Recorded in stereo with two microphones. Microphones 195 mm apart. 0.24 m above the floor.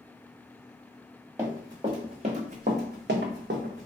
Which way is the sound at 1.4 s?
15° right (ahead or behind).